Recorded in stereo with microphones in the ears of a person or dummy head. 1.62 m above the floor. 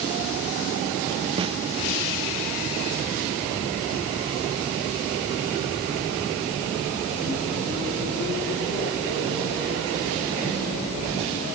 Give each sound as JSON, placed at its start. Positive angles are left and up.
{"t": 1.4, "sound": "a snare drum", "side_deg": -25, "distance_m": 1.4}